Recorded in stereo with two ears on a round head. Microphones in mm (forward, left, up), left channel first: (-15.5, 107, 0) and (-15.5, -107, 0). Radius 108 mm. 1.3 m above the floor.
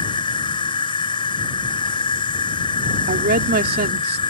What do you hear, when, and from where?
0.0 s an insect: 20° left (ahead or behind)
3.1 s a woman speaking: 40° right (ahead or behind)